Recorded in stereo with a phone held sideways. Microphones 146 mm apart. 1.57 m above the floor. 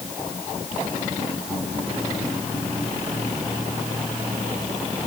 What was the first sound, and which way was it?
Only background noise.